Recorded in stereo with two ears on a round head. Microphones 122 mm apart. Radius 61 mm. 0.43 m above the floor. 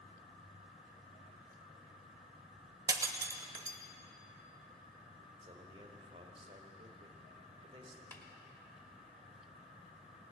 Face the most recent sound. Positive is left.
turn(degrees=15)  # may be behind; listen again after turning